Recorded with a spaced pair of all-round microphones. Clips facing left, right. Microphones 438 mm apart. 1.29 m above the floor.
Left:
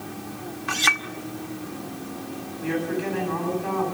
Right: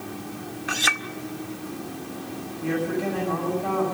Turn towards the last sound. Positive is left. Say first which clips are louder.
# right 1 dB
turn(degrees=-70)  # may be behind; listen again after turning